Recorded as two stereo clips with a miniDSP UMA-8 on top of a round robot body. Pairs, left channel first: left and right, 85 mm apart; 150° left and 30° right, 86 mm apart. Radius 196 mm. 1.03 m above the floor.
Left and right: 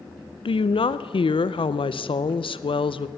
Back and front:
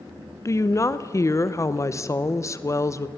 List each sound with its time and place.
0.5 s a woman speaking: 95° left, 0.9 m